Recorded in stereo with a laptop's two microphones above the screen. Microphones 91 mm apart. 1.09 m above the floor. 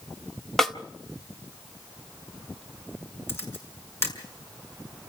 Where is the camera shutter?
30° left (ahead or behind), 5.5 m.